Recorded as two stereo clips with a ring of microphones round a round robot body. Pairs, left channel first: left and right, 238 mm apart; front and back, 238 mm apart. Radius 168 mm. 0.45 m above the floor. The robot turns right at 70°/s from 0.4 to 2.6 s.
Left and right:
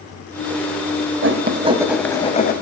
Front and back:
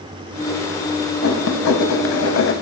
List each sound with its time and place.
1.2 s writing: 55° right, 1.2 m; by 2.5 s 40° left, 1.2 m